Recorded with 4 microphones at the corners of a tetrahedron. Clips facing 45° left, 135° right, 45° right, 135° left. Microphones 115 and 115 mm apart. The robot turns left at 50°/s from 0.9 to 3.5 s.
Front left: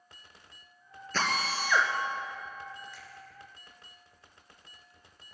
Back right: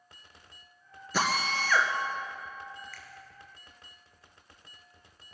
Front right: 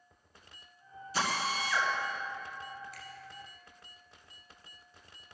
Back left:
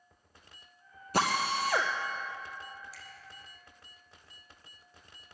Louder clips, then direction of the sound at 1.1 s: Back right 2 dB, back left 4 dB; 150° left.